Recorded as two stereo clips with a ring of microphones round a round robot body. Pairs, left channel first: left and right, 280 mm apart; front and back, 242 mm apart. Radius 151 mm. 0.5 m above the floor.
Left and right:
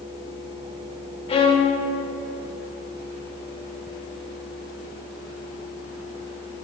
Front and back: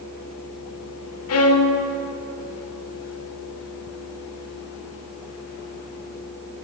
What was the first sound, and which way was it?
A violin, 20° left.